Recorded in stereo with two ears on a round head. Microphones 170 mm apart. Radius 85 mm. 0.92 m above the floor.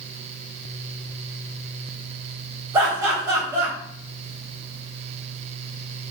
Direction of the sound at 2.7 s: 15° right (ahead or behind).